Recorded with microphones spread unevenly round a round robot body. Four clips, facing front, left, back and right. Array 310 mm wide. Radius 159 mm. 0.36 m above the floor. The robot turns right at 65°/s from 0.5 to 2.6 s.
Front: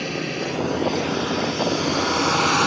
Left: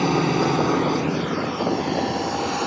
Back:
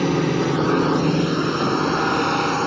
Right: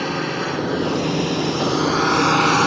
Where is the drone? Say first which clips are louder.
Left 4 dB, back 7 dB; 150° left; by 2.7 s 75° right.